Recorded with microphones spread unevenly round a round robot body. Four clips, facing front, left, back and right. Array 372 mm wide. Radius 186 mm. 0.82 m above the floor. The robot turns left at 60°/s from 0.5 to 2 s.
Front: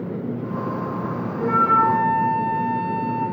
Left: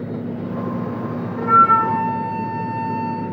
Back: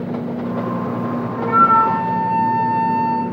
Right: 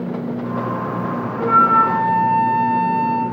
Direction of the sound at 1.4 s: 125° left.